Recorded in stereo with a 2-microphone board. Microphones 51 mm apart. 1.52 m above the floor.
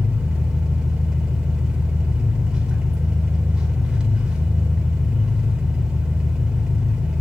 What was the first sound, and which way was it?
An engine running, 15° right (ahead or behind).